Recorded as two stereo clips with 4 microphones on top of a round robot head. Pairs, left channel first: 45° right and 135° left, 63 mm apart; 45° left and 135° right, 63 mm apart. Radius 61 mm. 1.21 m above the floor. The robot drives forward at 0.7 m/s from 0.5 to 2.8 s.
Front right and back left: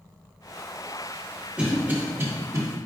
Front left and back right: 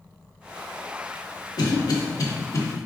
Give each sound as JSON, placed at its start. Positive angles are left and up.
{"t": 1.6, "sound": "a cough", "azimuth_deg": 60, "distance_m": 1.4}